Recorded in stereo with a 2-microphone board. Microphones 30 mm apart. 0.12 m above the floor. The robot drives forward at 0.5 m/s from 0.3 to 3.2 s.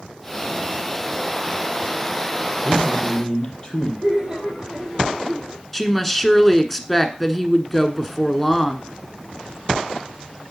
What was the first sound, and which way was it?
A man speaking, 30° left (ahead or behind).